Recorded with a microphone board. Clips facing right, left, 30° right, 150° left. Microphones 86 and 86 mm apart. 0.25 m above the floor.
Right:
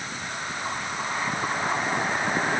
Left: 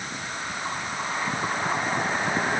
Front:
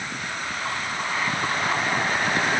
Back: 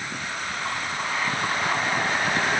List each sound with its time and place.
Only background noise.